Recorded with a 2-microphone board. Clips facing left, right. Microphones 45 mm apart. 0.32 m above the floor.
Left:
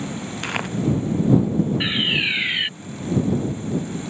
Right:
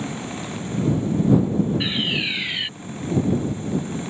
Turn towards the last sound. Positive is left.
turn(degrees=20)  # may be behind; listen again after turning